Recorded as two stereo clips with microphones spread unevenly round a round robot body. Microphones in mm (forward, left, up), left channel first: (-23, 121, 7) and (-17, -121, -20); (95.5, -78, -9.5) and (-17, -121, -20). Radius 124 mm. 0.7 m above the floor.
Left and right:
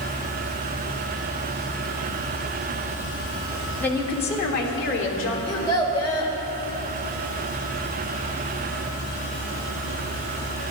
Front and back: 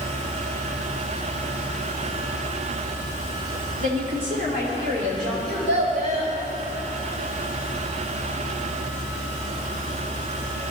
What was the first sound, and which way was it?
A woman speaking, straight behind.